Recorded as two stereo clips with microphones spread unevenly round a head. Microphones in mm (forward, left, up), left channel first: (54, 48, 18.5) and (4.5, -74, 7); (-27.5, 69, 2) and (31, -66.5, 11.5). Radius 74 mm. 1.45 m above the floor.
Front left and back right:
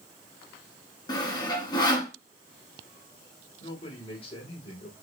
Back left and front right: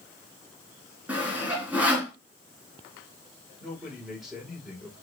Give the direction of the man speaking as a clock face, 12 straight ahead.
11 o'clock.